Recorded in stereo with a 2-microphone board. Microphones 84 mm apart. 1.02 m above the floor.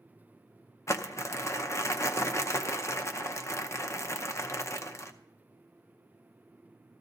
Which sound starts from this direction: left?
Crumpling, at 0.9 s.